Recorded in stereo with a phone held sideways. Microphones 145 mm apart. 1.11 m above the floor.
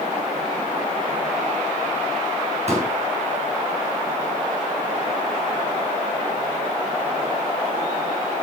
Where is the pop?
50° right (ahead or behind), 4 m.